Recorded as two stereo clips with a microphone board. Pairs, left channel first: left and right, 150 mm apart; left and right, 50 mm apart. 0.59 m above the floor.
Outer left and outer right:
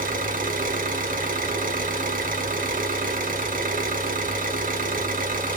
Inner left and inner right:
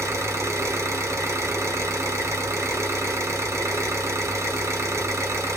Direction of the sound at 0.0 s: 65° right (ahead or behind).